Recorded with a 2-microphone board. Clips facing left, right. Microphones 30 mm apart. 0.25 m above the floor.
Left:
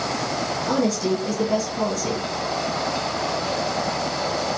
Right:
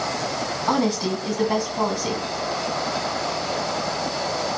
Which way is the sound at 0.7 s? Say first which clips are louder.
Even; 50° right (ahead or behind).